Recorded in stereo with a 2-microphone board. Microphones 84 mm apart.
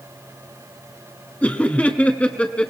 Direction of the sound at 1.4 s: 15° left (ahead or behind).